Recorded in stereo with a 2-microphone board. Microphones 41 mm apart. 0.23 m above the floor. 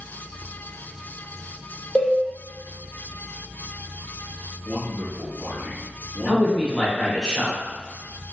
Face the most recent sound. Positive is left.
turn(degrees=15)  # may be behind; listen again after turning